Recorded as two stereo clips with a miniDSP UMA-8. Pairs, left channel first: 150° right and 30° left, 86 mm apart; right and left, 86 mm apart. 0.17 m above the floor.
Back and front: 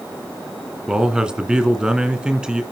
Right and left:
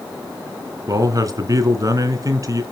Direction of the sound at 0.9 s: 110° left.